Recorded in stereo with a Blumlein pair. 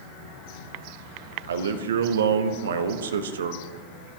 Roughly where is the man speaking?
Ahead right.